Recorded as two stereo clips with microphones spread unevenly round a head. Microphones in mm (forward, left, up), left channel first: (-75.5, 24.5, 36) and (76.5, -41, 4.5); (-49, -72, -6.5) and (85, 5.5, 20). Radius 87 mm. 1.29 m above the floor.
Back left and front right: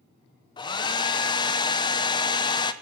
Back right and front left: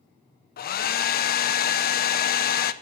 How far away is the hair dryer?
About 0.7 m.